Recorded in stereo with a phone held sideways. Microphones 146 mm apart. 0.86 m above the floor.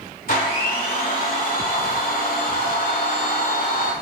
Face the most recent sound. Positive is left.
turn(degrees=70)  # may be behind; listen again after turning